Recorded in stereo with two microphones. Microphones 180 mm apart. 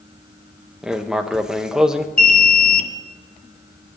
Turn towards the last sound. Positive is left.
turn(degrees=50)  # may be behind; listen again after turning